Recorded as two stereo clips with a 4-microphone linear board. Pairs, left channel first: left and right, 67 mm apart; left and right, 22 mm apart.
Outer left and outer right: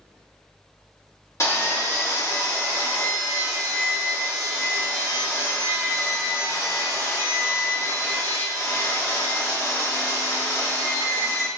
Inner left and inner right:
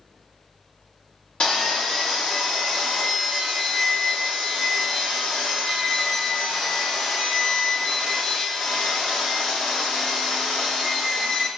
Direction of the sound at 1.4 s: 50° left (ahead or behind).